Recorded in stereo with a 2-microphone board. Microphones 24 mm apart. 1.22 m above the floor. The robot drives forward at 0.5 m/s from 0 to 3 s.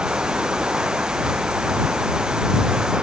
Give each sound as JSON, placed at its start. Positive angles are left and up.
{"t": 0.0, "sound": "running water", "side_deg": -45}